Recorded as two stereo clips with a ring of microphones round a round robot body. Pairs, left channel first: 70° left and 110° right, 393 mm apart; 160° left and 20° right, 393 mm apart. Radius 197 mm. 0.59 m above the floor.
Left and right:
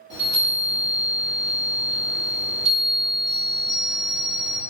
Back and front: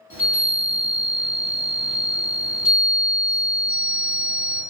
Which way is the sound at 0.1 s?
140° left.